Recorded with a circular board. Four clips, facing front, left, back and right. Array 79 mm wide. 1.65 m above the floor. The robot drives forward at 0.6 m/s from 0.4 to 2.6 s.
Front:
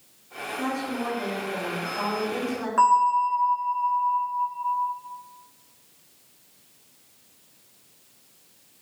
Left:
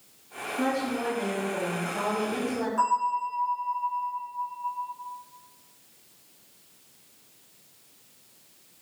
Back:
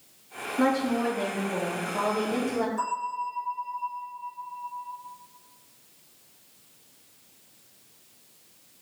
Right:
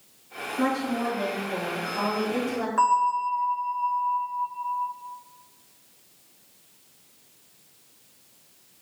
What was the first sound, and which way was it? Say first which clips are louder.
A woman speaking: right 2 dB, back 5 dB; 165° right.